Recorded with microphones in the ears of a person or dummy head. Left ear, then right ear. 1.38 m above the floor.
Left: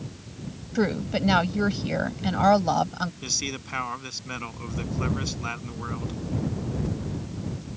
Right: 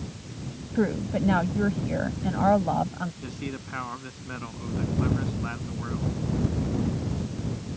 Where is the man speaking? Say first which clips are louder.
Left 8 dB; 85° left.